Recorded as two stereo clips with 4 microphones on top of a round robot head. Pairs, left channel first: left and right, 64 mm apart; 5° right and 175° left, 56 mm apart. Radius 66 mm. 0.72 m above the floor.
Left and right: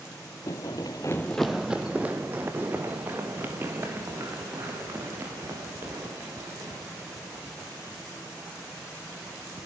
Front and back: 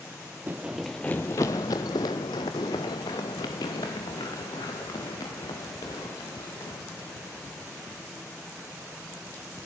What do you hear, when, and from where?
0.5 s running footsteps: 120° left, 0.9 m; by 9.7 s 30° right, 10 m